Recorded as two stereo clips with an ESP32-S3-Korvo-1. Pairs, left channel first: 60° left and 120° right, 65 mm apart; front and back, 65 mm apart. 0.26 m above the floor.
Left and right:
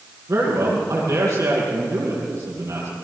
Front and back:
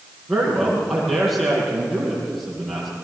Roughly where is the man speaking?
Right.